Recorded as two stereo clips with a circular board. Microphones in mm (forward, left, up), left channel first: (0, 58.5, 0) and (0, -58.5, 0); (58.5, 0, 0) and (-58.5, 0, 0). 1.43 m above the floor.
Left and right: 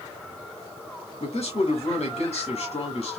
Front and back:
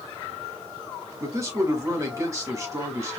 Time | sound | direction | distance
1.2 | a man speaking | 120° left | 2 m